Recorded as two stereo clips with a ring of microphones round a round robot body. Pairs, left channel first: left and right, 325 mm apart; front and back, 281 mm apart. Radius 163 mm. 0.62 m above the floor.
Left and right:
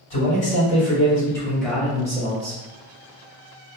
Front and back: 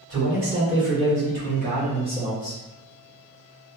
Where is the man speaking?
155° left, 1.9 m; by 2.6 s 95° right, 1.1 m.